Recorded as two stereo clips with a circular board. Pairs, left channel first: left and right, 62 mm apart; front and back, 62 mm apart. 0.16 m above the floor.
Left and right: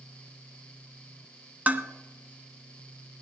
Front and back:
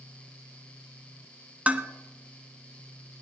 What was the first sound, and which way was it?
Dishes clattering, 130° right.